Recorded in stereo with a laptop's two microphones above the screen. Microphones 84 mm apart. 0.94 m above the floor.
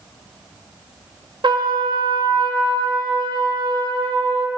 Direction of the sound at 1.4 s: 70° right (ahead or behind).